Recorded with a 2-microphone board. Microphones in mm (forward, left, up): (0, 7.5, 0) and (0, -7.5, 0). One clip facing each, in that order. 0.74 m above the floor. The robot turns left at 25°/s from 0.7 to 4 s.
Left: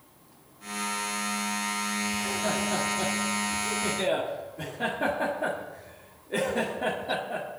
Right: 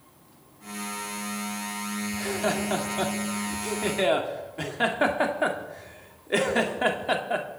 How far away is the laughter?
About 1.9 m.